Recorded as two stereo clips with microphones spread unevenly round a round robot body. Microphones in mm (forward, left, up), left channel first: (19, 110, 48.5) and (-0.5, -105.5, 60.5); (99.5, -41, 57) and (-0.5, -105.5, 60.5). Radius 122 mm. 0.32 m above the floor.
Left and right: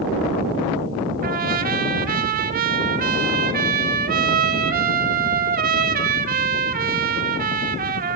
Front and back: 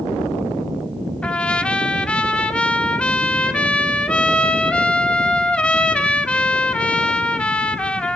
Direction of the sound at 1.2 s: 45° right.